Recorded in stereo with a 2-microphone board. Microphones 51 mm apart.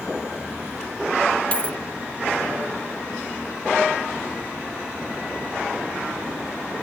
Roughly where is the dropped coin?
Left.